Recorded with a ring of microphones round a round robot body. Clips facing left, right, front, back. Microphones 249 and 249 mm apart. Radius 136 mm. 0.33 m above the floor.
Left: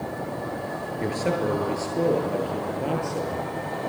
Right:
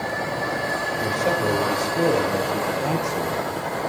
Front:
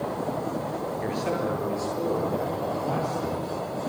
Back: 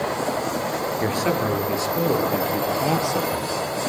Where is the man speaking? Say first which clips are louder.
Right 1 dB, back 5 dB; 165° left, 7 m; by 3.5 s 175° right, 9 m.